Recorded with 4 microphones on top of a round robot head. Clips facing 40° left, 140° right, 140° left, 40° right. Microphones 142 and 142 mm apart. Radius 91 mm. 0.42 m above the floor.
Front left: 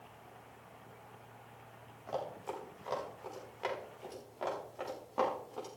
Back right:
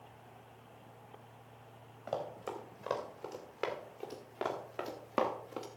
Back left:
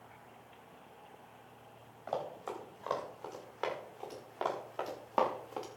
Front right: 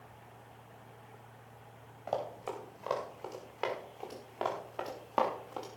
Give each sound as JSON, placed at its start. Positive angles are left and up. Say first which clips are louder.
{"t": 2.1, "sound": "running footsteps", "louder": "back right 1 dB, front right 2 dB", "azimuth_deg": -115, "distance_m": 5.5}